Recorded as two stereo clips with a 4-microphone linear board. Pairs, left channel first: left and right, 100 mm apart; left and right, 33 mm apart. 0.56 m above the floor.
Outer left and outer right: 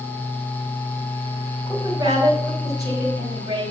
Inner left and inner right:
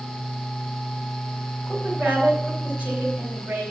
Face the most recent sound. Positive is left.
turn(degrees=-35)  # may be behind; listen again after turning